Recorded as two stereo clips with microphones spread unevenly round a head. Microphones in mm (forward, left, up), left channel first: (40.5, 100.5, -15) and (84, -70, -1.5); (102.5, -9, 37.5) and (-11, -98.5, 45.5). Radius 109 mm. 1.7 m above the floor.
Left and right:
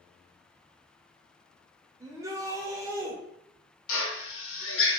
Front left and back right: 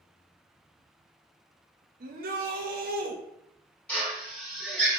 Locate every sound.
2.0 s a shout: 145° right, 0.6 m
3.9 s a drill: 120° left, 0.7 m